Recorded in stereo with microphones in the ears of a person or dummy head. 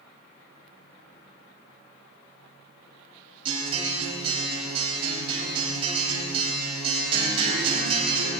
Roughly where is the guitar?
Right.